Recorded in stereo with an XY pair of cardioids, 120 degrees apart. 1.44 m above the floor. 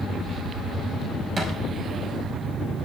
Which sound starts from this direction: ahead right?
A thud, at 1.4 s.